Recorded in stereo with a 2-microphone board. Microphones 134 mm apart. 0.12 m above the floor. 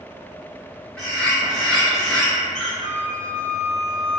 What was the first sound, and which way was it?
A bird, 5° left (ahead or behind).